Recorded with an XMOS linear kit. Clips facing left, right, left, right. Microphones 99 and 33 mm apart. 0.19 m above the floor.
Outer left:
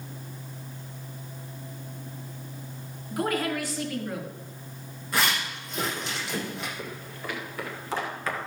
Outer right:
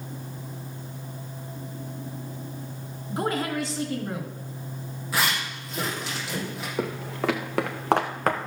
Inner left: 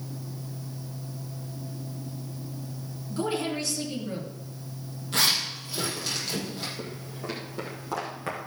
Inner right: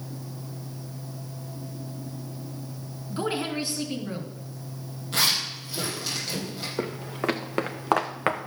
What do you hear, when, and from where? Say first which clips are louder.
3.1 s a woman speaking: even, even; 25° right (ahead or behind), 2.5 m
5.1 s a zipper: even, even; centre (ahead or behind), 5 m
6.8 s footsteps: outer right 9 dB, inner right 7 dB; 85° right, 1.2 m; by 8.5 s 45° right (ahead or behind), 1.3 m